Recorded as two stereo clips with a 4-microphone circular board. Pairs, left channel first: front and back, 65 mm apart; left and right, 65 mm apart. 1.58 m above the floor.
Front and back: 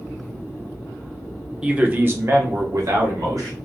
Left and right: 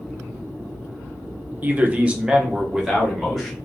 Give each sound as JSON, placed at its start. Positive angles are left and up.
{"t": 1.6, "sound": "a man speaking", "azimuth_deg": -115, "distance_m": 0.6}